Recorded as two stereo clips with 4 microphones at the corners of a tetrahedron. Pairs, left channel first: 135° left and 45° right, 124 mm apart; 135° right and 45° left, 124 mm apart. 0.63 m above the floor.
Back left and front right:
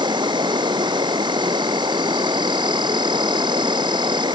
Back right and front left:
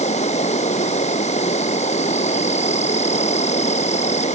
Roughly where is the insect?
Right.